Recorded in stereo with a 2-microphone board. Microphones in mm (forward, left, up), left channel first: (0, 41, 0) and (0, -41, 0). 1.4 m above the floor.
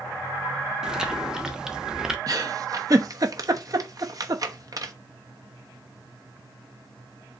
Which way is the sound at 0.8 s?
10° right (ahead or behind).